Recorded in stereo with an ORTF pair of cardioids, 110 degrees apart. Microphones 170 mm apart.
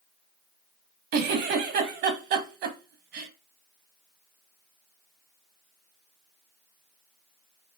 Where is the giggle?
70° right, 1.0 m.